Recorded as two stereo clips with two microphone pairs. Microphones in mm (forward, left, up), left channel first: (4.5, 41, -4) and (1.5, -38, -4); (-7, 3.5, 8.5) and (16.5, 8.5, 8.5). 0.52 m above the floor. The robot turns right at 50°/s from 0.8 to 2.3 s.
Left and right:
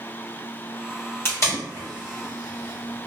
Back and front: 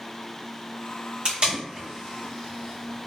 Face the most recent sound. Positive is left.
turn(degrees=90)